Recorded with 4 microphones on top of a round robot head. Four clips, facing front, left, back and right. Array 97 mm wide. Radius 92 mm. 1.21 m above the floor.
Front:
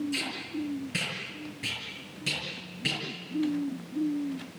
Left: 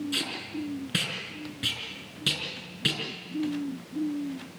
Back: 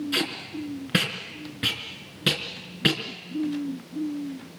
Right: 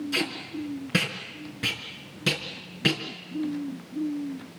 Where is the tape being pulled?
150° right, 4.5 m.